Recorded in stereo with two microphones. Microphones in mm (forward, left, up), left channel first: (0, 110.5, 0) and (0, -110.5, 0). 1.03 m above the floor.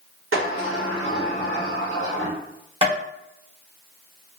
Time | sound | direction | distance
0.3 | a sliding door | 75° right (ahead or behind) | 1.4 m
2.8 | tapping | 25° right (ahead or behind) | 1.3 m